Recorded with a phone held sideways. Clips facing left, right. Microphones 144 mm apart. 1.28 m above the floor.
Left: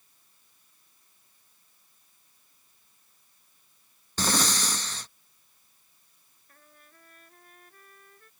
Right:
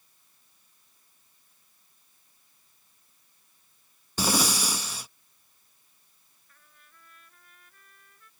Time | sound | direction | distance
4.2 | breathing | 10° right (ahead or behind) | ?
6.5 | a trumpet | 45° left (ahead or behind) | ?